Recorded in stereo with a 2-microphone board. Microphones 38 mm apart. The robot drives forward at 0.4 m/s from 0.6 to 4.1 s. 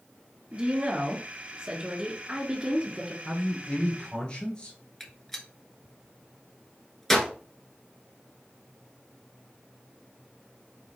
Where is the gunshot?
10° left (ahead or behind), 1.0 m.